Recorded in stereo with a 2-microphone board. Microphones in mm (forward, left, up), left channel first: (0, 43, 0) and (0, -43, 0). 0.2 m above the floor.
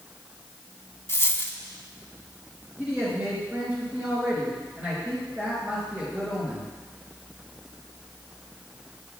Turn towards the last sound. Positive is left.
turn(degrees=-15)  # may be behind; listen again after turning